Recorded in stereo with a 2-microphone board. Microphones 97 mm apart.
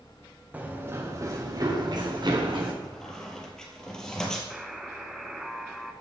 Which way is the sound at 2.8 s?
5° left (ahead or behind).